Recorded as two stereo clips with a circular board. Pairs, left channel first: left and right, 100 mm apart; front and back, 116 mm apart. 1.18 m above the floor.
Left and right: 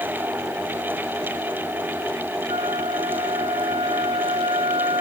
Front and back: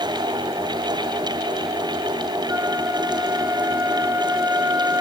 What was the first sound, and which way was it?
A flute, 115° right.